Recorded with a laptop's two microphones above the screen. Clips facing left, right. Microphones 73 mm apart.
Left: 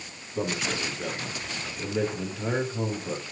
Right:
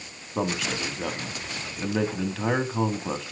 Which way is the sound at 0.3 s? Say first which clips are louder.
Right 2 dB; 85° right.